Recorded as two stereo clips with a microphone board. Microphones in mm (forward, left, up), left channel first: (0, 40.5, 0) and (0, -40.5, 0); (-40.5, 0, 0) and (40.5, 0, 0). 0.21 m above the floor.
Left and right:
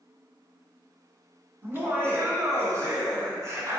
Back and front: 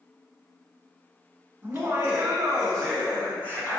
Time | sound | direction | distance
1.6 | laughter | 45° right | 1.1 m